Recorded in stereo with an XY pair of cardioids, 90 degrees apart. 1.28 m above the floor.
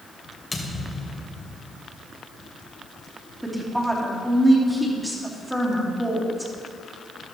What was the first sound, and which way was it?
A thud, 25° left.